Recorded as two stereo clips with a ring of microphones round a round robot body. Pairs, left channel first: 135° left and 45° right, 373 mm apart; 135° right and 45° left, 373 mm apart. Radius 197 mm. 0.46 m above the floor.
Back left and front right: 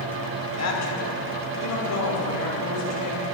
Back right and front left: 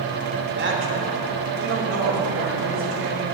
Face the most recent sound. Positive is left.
turn(degrees=90)